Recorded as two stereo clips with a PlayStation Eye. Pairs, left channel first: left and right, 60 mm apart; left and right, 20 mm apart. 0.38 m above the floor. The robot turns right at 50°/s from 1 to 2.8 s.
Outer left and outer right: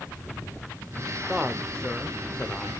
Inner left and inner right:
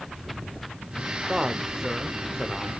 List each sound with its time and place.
1.3 s a man speaking: 10° right (ahead or behind), 1.1 m; by 2.7 s 20° left (ahead or behind), 1.1 m